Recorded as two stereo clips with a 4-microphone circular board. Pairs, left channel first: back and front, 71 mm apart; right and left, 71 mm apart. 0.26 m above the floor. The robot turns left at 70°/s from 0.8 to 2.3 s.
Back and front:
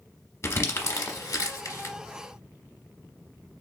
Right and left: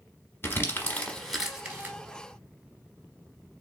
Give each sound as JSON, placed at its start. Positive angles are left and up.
{"t": 0.4, "sound": "crumpling", "azimuth_deg": -140, "distance_m": 0.9}